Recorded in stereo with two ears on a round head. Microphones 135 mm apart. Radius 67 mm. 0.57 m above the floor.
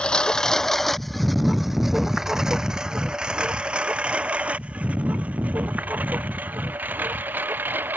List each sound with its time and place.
0.0 s a lawn mower: 5° left (ahead or behind); by 8.0 s 10° right (ahead or behind)